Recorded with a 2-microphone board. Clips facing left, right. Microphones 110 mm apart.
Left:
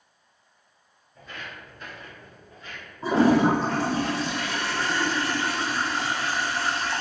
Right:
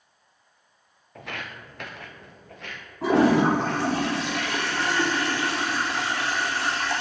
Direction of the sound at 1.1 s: 80° right.